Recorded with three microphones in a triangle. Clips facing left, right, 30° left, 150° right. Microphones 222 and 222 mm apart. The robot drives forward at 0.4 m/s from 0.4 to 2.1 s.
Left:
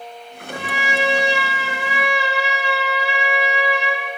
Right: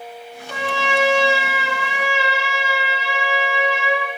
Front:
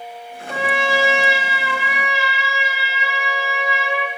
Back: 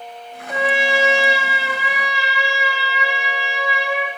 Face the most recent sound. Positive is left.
turn(degrees=-95)